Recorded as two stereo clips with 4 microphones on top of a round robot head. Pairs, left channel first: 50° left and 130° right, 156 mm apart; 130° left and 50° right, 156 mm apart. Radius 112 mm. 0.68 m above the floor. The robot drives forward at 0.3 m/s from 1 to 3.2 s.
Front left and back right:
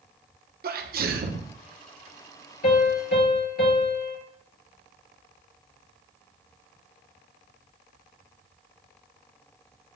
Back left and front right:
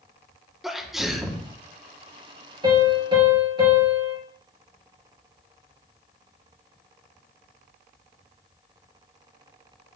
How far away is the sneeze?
About 1.2 m.